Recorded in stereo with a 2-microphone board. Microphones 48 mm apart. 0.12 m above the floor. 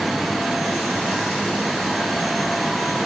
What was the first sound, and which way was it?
Only background noise.